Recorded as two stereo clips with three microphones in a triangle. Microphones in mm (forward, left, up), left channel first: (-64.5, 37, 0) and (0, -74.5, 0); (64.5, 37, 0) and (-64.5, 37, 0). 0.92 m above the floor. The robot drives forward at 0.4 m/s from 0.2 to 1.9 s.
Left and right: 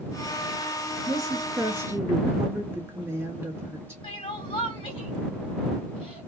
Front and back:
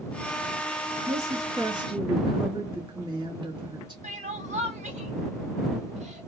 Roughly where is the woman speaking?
Behind right.